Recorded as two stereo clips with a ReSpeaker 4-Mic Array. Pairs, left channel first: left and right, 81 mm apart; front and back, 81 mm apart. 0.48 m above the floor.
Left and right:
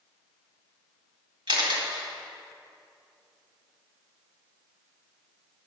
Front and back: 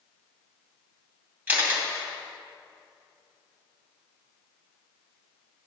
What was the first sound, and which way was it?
A camera shutter, 115° right.